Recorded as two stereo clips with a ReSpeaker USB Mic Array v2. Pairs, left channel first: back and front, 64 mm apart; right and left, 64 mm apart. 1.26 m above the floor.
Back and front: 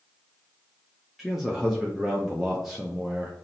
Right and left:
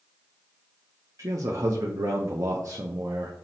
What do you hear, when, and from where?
1.2 s a man speaking: 85° left, 0.6 m